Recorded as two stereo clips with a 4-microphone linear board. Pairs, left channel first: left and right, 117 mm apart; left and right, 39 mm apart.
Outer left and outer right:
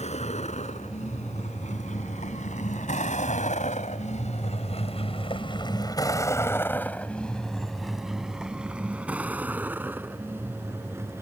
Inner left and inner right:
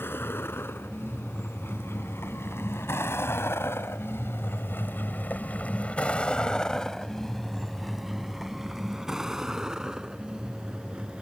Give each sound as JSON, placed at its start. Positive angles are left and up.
{"t": 0.0, "sound": "a vehicle", "side_deg": 65}